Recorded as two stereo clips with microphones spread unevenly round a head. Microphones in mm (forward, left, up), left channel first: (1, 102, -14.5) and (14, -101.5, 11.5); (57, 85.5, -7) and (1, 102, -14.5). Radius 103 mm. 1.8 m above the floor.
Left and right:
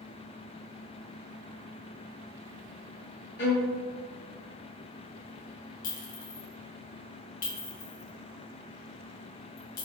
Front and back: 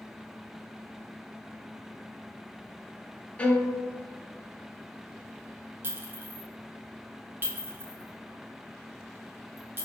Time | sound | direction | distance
3.4 | a violin | 55° left | 0.7 m
5.8 | a clink | 120° left | 0.8 m